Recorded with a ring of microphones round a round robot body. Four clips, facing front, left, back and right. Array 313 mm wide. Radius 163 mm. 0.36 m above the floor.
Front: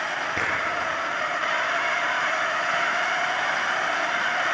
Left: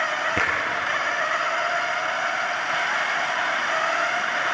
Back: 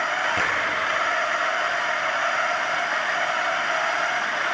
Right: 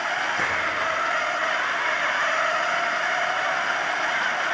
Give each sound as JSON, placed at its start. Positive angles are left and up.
{"t": 0.4, "sound": "a finger snap", "azimuth_deg": 80, "distance_m": 7.0}